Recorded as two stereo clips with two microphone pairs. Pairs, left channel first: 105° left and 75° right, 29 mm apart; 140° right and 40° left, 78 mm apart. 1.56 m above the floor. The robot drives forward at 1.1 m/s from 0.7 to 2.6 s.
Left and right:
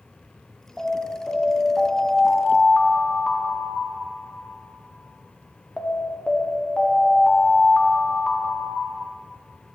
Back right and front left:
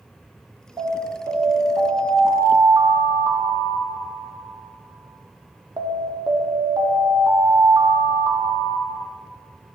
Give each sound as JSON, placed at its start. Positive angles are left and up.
{"t": 0.8, "sound": "an alarm", "azimuth_deg": 20, "distance_m": 3.0}